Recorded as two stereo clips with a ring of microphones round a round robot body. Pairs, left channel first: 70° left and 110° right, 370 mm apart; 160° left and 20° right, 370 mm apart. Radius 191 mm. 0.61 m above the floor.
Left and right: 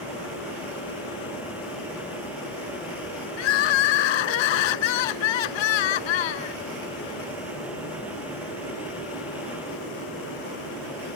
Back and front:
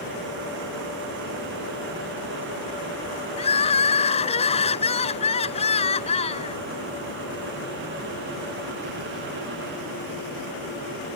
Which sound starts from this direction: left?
Crying, at 3.4 s.